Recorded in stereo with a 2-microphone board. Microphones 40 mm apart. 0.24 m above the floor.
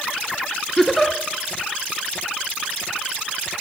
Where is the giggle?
5° left (ahead or behind), 1.2 m.